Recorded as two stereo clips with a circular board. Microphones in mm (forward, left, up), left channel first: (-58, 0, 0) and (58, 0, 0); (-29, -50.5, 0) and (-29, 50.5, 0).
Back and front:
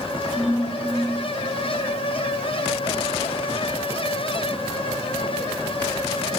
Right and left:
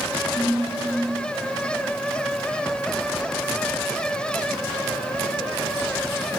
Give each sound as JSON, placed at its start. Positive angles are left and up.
{"t": 0.3, "sound": "a ringtone", "azimuth_deg": -90, "distance_m": 4.0}